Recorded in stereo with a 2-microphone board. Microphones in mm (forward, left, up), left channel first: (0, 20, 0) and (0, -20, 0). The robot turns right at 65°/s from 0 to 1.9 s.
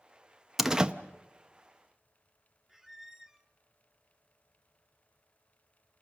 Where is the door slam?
5° right (ahead or behind), 0.6 m; by 0.9 s 30° right (ahead or behind), 0.6 m.